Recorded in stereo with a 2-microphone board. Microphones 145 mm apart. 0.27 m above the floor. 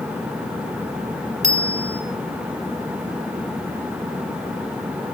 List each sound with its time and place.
1.4 s a bicycle bell: 50° right (ahead or behind), 3 m